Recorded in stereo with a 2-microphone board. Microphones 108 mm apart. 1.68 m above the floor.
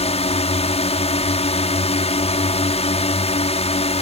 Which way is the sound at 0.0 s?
70° left (ahead or behind).